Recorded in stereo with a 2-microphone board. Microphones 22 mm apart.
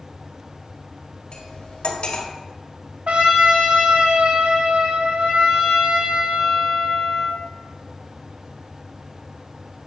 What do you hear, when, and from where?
1.3 s cutlery clinking: 65° left (ahead or behind), 1.5 m
3.1 s a trumpet: 80° right, 1.5 m